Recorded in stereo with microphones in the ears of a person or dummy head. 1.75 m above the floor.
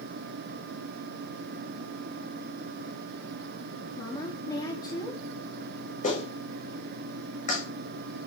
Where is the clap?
50° left (ahead or behind), 7 m.